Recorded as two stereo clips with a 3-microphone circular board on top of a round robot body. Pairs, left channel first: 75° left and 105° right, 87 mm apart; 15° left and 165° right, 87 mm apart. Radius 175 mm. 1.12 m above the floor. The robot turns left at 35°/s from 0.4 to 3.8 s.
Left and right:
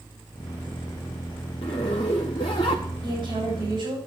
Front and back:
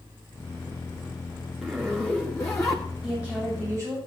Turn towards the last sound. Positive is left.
turn(degrees=-110)